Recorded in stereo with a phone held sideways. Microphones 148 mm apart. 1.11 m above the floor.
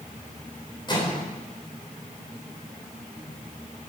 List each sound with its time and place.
0.9 s a microwave: 35° left (ahead or behind), 3.5 m